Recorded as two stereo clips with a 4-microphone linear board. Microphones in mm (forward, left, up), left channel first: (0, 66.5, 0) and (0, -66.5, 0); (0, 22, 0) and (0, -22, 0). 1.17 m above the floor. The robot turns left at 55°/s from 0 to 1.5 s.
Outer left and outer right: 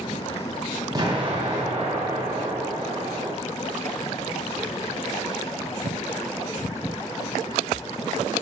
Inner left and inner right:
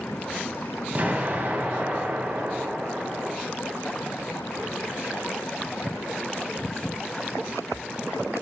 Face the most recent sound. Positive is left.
turn(degrees=-65)